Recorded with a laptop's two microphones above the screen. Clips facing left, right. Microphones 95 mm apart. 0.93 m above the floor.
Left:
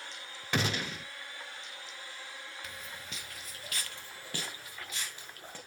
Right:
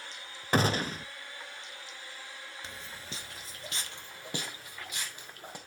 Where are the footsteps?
30° right (ahead or behind), 1.0 m; by 5.6 s 15° right (ahead or behind), 3 m.